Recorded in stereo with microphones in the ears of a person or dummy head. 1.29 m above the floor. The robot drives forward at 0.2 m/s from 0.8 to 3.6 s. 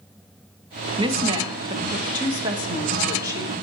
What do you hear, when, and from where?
1.0 s a woman speaking: 25° right (ahead or behind), 0.8 m; by 3.5 s 15° right (ahead or behind), 1.2 m